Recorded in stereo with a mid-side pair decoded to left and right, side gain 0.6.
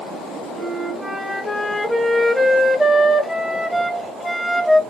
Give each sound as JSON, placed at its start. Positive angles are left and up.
{"t": 0.6, "sound": "a flute", "azimuth_deg": 0, "distance_m": 0.9}